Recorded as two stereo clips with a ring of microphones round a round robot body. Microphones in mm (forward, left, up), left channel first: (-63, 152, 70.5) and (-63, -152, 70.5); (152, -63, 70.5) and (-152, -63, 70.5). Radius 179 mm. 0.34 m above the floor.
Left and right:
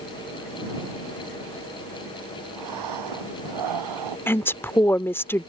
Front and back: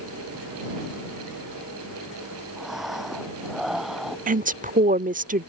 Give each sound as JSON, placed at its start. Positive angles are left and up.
{"t": 2.6, "sound": "breathing", "azimuth_deg": -90}
{"t": 4.3, "sound": "a woman speaking", "azimuth_deg": 165}